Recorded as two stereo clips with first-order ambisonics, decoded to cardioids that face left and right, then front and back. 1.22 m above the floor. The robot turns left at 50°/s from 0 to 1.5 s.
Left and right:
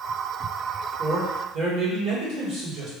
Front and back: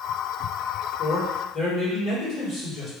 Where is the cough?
No cough in this recording.